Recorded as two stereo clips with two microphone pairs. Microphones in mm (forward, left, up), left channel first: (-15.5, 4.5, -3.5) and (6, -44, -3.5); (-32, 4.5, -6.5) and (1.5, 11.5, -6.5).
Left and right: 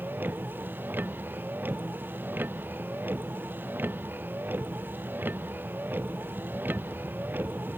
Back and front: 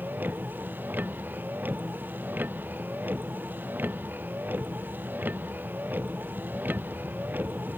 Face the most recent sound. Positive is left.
turn(degrees=-15)